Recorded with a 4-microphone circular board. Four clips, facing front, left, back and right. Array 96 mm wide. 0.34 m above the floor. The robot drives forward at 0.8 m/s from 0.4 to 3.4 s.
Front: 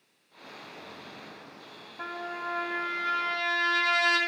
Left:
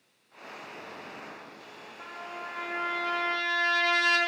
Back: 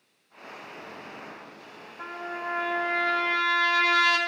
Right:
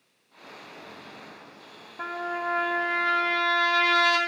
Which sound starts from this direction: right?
A trumpet, at 2.0 s.